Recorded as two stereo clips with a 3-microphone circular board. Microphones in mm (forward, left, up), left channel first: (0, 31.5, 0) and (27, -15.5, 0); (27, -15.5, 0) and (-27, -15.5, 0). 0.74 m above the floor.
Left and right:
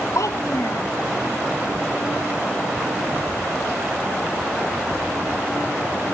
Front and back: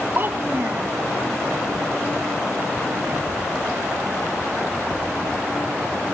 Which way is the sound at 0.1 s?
130° left.